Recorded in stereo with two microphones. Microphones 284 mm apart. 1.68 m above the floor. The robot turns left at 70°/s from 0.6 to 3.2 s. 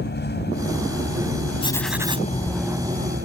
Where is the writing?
20° left; by 2.3 s 30° right.